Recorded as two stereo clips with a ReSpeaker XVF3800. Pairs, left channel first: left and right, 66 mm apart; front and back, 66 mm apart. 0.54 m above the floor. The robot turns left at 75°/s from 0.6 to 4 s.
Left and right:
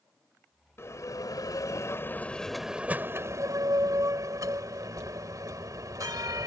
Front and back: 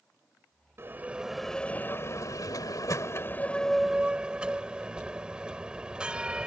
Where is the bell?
135° left; by 6.5 s 105° right.